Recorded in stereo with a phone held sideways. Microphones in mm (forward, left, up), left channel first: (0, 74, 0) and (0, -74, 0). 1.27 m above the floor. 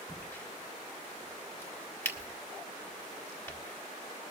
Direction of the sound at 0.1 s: 20° left (ahead or behind).